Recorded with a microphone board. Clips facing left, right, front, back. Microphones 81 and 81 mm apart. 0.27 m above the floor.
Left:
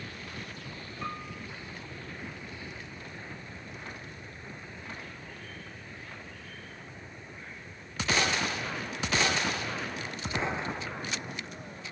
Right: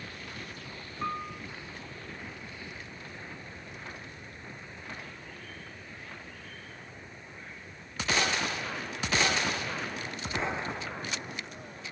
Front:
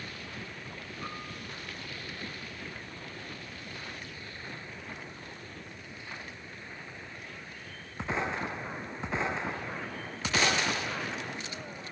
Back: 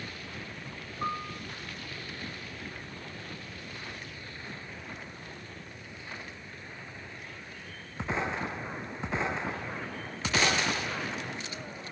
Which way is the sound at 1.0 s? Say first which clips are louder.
Right 4 dB, back 9 dB; 150° right.